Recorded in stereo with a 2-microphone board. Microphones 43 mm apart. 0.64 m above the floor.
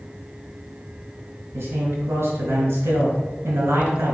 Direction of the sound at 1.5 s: 80° right.